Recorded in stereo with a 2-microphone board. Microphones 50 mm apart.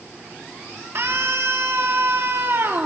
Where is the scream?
60° right (ahead or behind), 3 m.